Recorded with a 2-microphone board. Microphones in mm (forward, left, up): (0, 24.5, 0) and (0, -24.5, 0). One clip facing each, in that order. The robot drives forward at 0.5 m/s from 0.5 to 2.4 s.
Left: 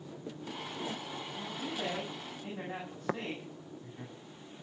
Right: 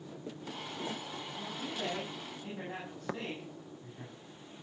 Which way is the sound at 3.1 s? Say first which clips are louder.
Left 4 dB; 15° left (ahead or behind).